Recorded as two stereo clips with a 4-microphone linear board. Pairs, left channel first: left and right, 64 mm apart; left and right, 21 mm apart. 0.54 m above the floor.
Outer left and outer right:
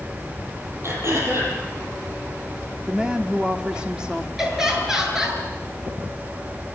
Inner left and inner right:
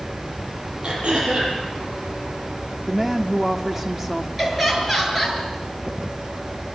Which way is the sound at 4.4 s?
10° right (ahead or behind).